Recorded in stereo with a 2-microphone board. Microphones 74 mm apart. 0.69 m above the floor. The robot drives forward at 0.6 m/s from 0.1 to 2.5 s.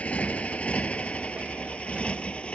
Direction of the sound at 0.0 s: 20° left (ahead or behind).